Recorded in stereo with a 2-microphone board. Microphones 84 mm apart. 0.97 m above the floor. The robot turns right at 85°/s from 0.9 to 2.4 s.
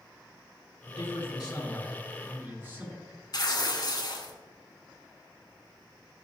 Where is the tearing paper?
55° left (ahead or behind), 1.4 m.